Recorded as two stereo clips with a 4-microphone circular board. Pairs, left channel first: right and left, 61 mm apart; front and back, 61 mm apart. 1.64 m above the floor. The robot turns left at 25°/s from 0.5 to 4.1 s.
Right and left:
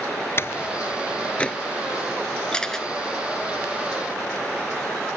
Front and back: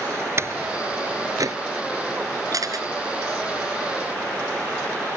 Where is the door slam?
135° right; by 1.6 s 165° right.